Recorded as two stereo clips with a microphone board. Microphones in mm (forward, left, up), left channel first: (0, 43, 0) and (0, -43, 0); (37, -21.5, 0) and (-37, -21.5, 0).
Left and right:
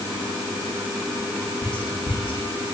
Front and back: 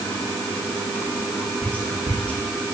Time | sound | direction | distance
1.6 | whispering | 70° left | 3.5 m